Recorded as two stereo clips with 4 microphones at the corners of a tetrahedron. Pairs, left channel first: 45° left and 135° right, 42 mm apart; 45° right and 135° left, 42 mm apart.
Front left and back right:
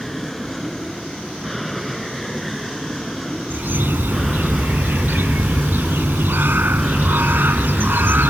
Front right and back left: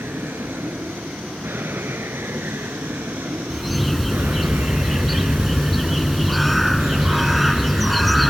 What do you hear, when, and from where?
0.0 s an aircraft: 130° left; by 8.3 s 125° left
3.5 s a bird: 135° right